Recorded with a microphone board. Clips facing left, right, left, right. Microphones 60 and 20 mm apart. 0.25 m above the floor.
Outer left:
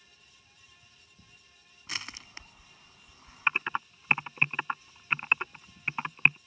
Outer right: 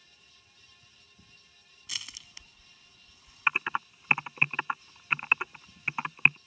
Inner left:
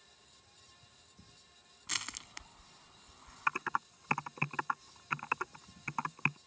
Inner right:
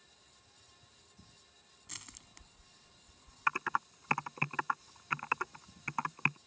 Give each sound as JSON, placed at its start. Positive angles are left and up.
{"t": 1.9, "sound": "crushing", "side_deg": 50}
{"t": 3.5, "sound": "typing on a keyboard", "side_deg": -5}